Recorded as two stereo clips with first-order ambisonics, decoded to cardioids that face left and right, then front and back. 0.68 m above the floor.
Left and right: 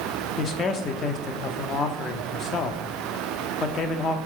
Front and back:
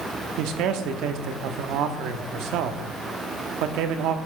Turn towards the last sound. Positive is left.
turn(degrees=150)